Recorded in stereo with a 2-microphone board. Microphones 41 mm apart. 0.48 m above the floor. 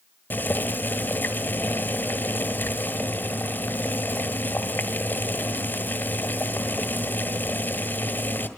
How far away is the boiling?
About 1.6 m.